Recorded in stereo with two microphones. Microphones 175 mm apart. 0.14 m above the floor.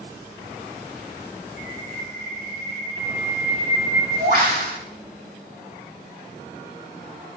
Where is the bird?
65° right (ahead or behind), 1.0 m.